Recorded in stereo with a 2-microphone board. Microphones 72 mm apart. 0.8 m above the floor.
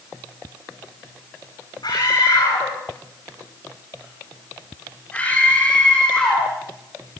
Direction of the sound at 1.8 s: 70° left (ahead or behind).